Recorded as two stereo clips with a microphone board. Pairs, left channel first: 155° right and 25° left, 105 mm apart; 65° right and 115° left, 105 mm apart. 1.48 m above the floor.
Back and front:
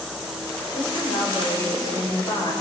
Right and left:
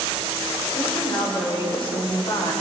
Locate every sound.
0.7 s a woman speaking: 110° right, 7.5 m